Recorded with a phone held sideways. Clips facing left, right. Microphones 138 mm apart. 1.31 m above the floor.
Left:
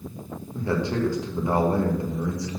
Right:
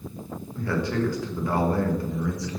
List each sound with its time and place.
0.5 s a man speaking: 20° left (ahead or behind), 1.7 m